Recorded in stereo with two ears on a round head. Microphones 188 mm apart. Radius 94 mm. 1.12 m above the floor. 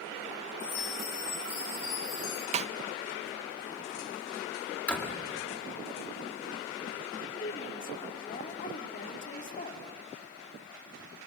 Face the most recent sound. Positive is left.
turn(degrees=40)  # may be behind; listen again after turning